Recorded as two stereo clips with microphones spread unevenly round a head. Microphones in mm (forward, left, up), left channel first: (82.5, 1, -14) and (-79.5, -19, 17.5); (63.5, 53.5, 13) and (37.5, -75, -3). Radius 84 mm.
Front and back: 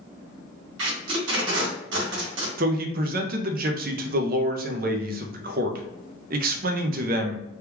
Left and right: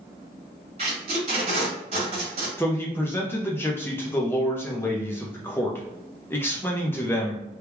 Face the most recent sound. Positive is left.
turn(degrees=160)